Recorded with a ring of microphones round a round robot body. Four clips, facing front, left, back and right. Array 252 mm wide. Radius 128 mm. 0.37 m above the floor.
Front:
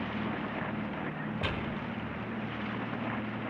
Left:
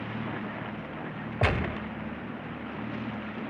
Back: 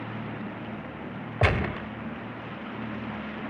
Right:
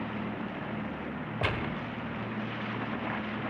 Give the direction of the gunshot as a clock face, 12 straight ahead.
7 o'clock.